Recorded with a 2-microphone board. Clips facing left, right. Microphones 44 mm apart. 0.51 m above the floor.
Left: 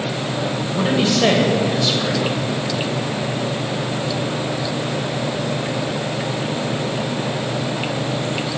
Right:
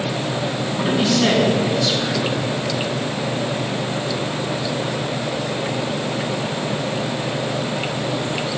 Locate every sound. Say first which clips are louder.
0.7 s a man speaking: left 1 dB; 55° left (ahead or behind), 1.7 m